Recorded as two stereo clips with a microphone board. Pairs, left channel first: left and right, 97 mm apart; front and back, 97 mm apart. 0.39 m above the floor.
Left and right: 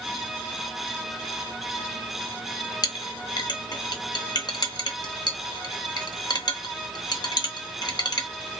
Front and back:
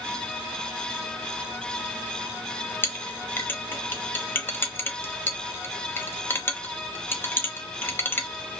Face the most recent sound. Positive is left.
turn(degrees=60)